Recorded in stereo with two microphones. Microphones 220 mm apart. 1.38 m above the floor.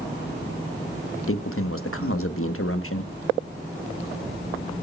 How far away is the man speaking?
About 1.3 m.